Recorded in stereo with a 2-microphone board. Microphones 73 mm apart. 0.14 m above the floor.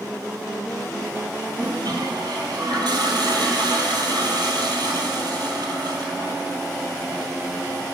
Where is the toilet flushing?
75° right (ahead or behind), 1.2 m.